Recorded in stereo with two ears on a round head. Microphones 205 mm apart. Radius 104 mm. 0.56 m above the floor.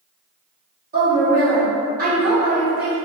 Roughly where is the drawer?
No drawer in this recording.